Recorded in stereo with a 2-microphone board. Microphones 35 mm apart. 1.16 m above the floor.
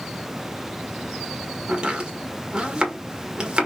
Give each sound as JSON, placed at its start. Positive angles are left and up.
{"t": 1.7, "sound": "chopping", "side_deg": -25, "distance_m": 1.5}